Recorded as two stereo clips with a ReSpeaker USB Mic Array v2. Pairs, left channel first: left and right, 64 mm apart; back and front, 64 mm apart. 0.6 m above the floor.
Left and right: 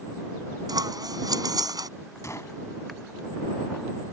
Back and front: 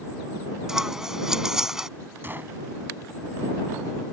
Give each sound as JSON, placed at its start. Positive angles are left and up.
{"t": 0.7, "sound": "scissors", "azimuth_deg": -85}
{"t": 2.2, "sound": "a gunshot", "azimuth_deg": 55}